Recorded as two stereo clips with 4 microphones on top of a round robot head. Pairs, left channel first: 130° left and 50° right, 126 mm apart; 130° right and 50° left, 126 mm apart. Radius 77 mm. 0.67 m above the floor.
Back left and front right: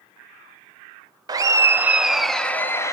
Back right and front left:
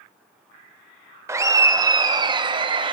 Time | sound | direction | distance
1.3 | laughter | 5° right | 1.1 m